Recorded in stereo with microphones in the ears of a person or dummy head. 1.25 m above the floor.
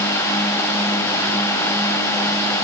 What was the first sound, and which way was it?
Only background noise.